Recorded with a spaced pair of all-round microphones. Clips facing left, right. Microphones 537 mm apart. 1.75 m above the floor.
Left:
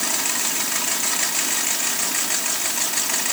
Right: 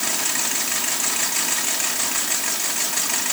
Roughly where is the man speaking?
No man speaking in this recording.